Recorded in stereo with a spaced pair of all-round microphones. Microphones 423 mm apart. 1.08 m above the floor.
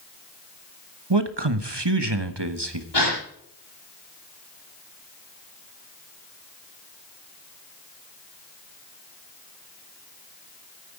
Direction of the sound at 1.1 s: 70° right (ahead or behind).